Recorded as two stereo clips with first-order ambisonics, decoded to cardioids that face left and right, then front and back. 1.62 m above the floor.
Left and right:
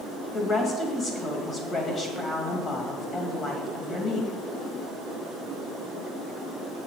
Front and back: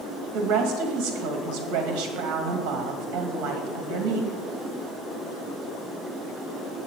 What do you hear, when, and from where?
0.3 s a woman speaking: 155° left, 2 m